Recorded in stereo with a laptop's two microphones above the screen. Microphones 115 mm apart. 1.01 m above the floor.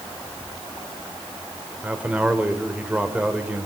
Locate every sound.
1.8 s a man speaking: 10° right (ahead or behind), 3 m